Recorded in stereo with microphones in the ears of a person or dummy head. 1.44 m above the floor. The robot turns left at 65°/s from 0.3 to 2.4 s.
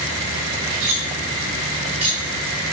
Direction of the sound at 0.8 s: 85° right.